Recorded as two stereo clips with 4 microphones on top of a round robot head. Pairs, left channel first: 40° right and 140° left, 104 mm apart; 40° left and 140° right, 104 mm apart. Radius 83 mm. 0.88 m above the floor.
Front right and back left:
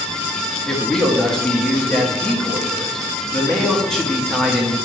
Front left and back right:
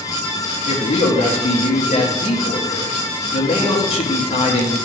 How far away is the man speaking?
About 1.3 m.